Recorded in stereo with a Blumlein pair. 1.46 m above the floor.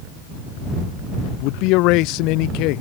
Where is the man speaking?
40° left.